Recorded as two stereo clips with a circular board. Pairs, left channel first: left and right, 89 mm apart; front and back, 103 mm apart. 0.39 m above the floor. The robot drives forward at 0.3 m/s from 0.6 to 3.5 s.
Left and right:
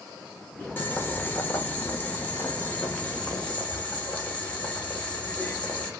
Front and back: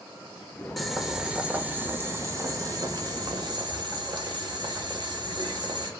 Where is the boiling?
90° left, 0.8 m; by 5.9 s 160° left, 1.1 m.